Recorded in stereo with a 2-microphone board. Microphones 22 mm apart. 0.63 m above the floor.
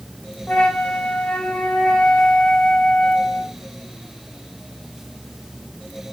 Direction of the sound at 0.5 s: 65° left (ahead or behind).